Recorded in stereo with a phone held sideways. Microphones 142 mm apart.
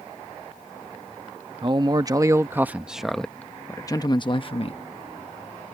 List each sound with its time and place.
1.6 s a man speaking: 35° right (ahead or behind); by 5.7 s 60° left (ahead or behind)